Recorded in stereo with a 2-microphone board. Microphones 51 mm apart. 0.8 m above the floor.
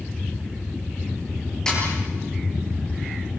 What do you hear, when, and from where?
1.7 s a snare drum: 15° left (ahead or behind), 8.5 m